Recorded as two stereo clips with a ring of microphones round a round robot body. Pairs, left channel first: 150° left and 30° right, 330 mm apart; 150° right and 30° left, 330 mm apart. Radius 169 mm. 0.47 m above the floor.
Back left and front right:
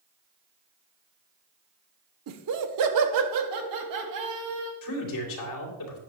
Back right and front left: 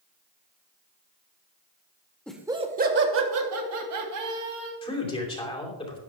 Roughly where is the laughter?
Ahead right.